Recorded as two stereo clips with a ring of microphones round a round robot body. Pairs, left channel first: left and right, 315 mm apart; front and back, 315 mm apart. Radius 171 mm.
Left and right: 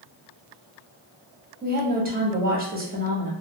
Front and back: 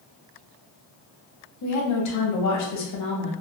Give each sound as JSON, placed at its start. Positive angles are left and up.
{"t": 1.6, "sound": "a woman speaking", "azimuth_deg": -30, "distance_m": 1.0}